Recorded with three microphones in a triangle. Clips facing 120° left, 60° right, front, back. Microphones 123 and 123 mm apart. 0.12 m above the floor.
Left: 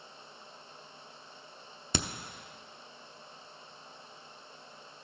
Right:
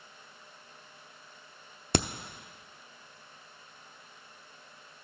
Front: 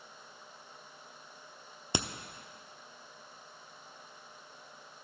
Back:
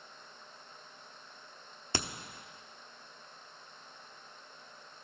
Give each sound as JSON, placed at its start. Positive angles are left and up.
{"t": 1.9, "sound": "a crack", "azimuth_deg": -70, "distance_m": 0.8}